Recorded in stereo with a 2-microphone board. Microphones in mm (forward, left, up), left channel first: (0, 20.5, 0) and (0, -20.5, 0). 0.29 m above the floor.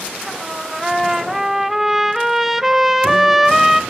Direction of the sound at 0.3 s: 5° right (ahead or behind).